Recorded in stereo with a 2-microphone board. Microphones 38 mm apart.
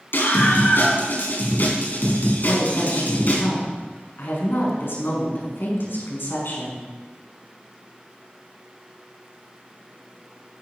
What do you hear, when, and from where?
0.1 s a scream: 60° left (ahead or behind), 5 m; by 3.4 s 45° left (ahead or behind), 5.5 m
2.4 s a woman speaking: 65° left (ahead or behind), 5.5 m